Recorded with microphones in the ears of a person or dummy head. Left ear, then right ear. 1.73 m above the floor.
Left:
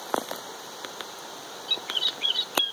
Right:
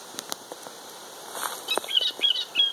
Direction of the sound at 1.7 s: 30° right (ahead or behind).